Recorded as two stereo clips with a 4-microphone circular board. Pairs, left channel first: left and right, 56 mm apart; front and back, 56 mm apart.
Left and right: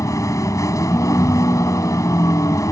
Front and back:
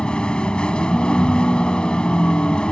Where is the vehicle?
75° left.